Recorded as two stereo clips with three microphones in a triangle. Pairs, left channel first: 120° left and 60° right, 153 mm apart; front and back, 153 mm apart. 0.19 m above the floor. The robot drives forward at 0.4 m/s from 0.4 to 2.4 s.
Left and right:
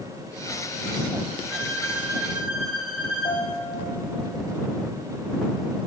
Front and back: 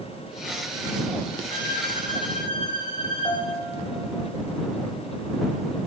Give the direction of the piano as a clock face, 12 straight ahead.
10 o'clock.